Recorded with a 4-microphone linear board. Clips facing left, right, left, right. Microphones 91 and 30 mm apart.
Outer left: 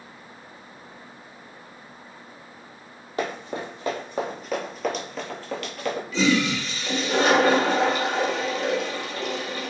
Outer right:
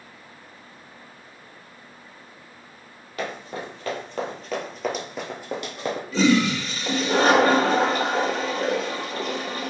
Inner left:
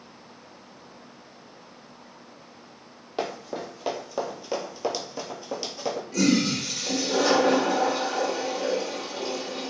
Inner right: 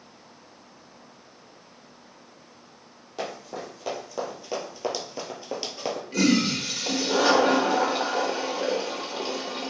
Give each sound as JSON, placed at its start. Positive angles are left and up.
{"t": 3.2, "sound": "running footsteps", "side_deg": 30, "distance_m": 1.6}
{"t": 6.1, "sound": "a toilet flushing", "side_deg": -40, "distance_m": 1.0}